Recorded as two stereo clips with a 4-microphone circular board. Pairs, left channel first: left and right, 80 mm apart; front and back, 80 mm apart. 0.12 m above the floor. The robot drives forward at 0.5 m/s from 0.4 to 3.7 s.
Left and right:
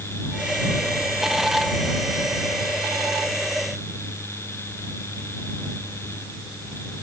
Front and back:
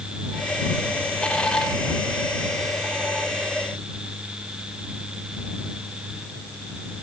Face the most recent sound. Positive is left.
No sound to turn to.